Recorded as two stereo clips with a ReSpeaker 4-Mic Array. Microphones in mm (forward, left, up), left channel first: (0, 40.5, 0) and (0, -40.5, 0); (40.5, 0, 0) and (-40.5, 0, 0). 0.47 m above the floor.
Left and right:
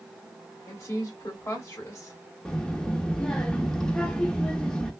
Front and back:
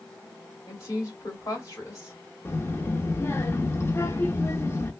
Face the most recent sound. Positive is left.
turn(degrees=15)